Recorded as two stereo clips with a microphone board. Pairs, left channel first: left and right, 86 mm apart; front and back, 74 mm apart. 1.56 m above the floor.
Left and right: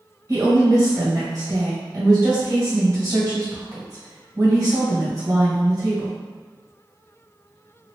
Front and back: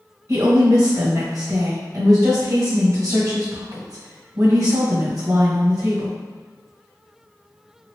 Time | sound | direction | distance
0.3 | a woman speaking | 140° right | 1.6 m